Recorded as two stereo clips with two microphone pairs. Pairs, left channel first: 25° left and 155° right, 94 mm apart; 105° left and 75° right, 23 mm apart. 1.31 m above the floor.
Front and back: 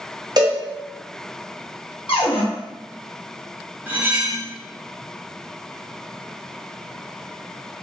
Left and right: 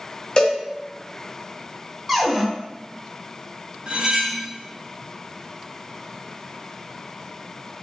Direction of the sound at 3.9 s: 90° right.